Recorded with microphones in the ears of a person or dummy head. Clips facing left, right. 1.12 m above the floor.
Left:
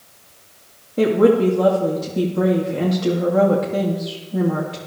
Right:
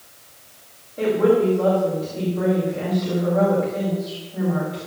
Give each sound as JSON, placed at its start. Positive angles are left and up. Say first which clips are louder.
{"t": 1.0, "sound": "a woman speaking", "louder": "left 3 dB", "side_deg": 60, "distance_m": 2.5}